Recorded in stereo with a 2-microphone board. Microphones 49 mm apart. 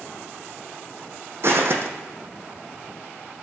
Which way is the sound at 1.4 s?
60° right (ahead or behind).